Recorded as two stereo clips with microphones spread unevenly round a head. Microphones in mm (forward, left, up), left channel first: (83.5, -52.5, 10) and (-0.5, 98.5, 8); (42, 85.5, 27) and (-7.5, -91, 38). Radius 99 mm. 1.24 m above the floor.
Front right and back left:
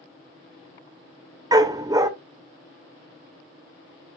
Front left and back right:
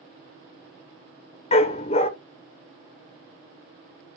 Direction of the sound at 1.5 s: 80° left.